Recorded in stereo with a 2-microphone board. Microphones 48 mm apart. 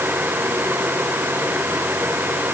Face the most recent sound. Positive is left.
No sound to turn to.